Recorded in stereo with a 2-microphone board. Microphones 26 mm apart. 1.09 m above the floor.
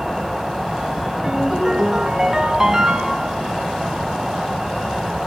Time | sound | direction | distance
0.0 | an insect | 5° right (ahead or behind) | 2.5 m
1.2 | a ringtone | 20° right (ahead or behind) | 3.5 m